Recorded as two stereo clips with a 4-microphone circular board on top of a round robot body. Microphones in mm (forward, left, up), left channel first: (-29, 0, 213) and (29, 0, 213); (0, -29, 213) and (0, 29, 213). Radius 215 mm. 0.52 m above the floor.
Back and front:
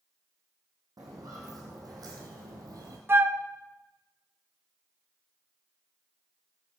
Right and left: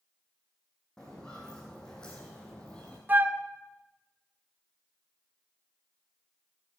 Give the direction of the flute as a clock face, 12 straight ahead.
11 o'clock.